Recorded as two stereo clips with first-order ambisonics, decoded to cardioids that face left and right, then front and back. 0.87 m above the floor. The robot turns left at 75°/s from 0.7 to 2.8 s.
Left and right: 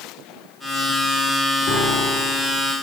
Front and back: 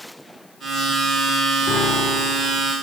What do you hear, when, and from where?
1.7 s a piano: 50° left, 3 m; by 2.6 s 20° right, 3 m